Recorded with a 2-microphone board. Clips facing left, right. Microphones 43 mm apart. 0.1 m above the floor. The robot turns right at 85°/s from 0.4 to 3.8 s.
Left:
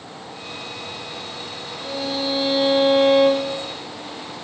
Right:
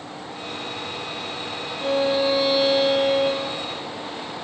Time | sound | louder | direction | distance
1.8 | a violin | right 6 dB | 50° right | 5.5 m